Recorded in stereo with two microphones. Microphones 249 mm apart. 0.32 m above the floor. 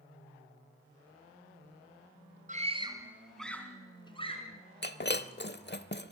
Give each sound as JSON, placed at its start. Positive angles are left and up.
{"t": 2.5, "sound": "a scream", "side_deg": -30, "distance_m": 2.5}
{"t": 4.8, "sound": "breaking glass", "side_deg": 45, "distance_m": 0.7}